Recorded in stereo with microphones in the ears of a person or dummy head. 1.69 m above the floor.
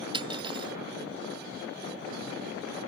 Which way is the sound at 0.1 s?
35° right (ahead or behind).